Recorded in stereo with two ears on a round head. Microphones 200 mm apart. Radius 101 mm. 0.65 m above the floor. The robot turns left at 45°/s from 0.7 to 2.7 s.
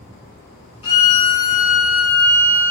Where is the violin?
25° left, 2.5 m; by 2.7 s 60° right, 2.5 m.